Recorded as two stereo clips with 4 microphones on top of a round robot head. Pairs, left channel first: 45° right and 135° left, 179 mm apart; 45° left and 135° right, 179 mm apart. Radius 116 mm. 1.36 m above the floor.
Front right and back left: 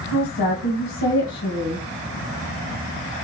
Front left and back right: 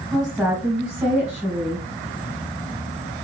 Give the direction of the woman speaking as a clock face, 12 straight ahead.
2 o'clock.